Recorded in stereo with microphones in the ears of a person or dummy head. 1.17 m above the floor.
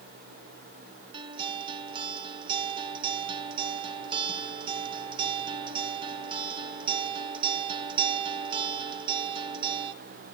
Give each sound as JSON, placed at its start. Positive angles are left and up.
{"t": 1.1, "sound": "a guitar", "side_deg": -25, "distance_m": 0.9}